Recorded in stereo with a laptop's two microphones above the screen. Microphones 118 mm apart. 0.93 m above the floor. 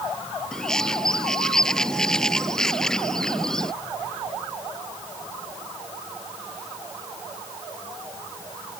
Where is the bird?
5° left (ahead or behind).